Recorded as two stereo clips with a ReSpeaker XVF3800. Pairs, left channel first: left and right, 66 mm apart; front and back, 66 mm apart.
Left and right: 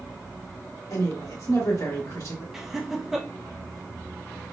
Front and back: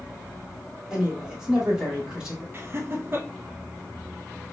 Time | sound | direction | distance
0.9 | a woman speaking | 105° left | 1.5 m
2.5 | laughter | 170° right | 0.6 m